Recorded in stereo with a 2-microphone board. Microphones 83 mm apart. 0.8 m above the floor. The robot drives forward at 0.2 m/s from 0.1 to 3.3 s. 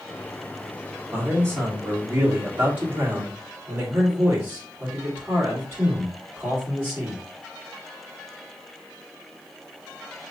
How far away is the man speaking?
About 2.5 m.